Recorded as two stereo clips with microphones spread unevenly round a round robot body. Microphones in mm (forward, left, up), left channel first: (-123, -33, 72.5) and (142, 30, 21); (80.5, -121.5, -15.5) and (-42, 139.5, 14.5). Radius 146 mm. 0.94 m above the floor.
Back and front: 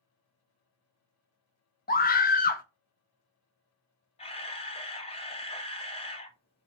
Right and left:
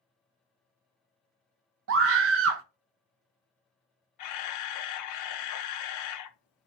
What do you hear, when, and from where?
1.9 s a scream: 135° left, 0.6 m
4.2 s a camera shutter: 95° right, 0.7 m